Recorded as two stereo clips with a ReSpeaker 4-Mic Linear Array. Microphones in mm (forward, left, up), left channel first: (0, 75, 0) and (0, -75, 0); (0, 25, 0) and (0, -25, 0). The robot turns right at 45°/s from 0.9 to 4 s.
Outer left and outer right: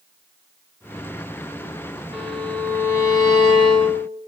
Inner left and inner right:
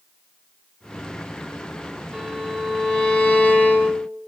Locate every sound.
2.1 s a violin: 10° right, 1.5 m; by 4.1 s 75° left, 1.5 m